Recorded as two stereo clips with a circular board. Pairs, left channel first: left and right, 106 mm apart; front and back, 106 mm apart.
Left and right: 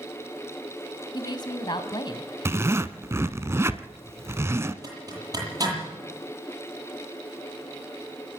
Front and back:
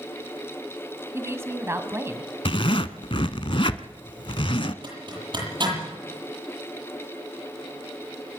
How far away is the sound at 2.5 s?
About 0.9 m.